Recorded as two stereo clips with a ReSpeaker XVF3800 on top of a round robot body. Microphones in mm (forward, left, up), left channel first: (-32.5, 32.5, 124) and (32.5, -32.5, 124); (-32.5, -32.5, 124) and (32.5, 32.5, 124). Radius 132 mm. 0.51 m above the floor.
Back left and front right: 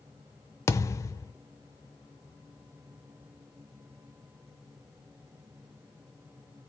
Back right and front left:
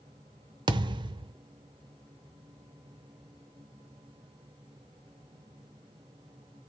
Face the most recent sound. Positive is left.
turn(degrees=80)